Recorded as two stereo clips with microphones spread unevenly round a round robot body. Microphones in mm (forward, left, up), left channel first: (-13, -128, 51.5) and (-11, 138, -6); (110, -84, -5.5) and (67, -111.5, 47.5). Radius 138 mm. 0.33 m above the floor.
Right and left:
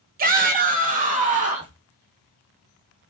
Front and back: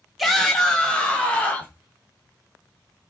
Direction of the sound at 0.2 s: 60° left.